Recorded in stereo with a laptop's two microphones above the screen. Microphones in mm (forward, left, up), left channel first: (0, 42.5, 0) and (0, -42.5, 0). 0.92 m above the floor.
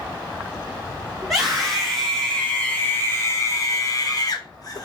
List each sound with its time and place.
1.2 s a scream: centre (ahead or behind), 1.5 m; by 4.9 s 45° left (ahead or behind), 1.1 m